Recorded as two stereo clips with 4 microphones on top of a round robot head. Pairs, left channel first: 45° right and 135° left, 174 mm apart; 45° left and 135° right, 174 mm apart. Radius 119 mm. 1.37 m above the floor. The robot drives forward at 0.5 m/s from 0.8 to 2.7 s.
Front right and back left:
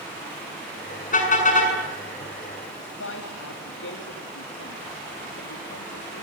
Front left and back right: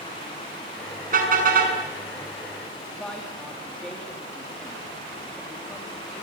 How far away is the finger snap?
I don't hear a finger snap.